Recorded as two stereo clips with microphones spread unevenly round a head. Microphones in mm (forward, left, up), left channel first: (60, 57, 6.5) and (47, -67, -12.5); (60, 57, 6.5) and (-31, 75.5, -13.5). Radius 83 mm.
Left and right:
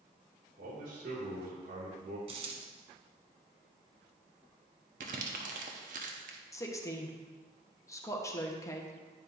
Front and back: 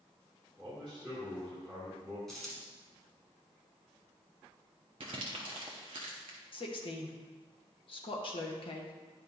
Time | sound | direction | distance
0.6 | a man speaking | 100° right | 2 m
2.3 | a dropped coin | 80° right | 1.1 m
5.0 | crumpling | 135° right | 0.7 m
6.5 | a woman speaking | 15° left | 1.2 m